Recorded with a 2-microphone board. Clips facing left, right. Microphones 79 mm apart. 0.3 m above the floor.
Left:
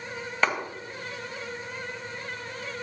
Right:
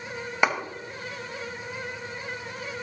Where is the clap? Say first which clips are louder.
Right 2 dB; 10° right (ahead or behind), 1.6 m.